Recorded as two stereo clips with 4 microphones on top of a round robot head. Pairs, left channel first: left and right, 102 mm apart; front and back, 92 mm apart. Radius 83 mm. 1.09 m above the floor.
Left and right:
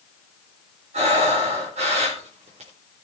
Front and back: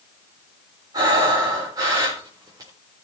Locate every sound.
0.9 s breathing: 115° right, 4 m